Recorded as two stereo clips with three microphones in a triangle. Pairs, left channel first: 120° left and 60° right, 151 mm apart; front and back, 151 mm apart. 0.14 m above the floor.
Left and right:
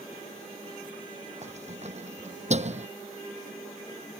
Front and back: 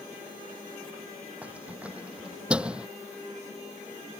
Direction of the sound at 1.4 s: 100° right.